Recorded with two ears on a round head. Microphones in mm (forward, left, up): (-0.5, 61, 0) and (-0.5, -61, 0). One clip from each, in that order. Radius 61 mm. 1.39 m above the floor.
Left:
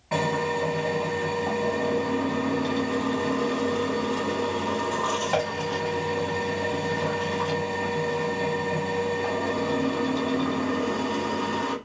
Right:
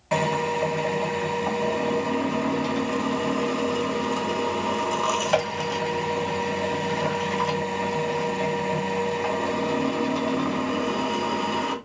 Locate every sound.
0.1 s a drill: 60° right (ahead or behind), 1.5 m